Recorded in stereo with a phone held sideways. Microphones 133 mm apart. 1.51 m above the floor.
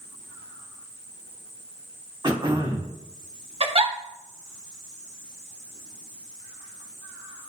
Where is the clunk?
I don't hear a clunk.